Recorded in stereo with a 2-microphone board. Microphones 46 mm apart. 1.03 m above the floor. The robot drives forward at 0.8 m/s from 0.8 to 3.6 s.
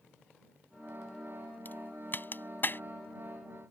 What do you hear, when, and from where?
1.6 s a crack: 40° left (ahead or behind); by 2.8 s 45° left (ahead or behind)